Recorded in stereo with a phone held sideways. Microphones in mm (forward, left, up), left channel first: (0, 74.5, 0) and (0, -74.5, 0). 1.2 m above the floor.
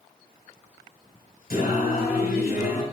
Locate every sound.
1.5 s singing: 80° left, 5 m